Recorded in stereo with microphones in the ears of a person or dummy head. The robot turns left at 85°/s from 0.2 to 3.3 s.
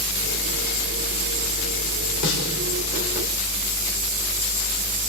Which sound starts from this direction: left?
A snare drum, at 2.2 s.